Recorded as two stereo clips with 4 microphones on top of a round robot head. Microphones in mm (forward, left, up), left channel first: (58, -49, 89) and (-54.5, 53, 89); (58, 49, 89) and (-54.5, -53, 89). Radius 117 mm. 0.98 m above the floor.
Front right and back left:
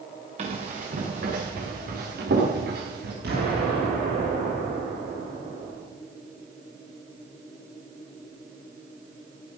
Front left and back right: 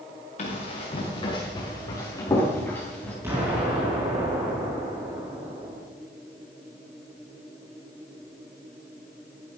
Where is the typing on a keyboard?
No typing on a keyboard in this recording.